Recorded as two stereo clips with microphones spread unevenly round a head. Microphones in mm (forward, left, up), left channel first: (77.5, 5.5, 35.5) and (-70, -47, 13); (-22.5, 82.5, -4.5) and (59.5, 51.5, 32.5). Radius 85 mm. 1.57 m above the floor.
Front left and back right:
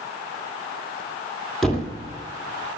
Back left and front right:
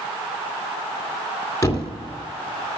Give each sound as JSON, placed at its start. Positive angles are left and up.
{"t": 1.6, "sound": "a thud", "azimuth_deg": 90, "distance_m": 1.8}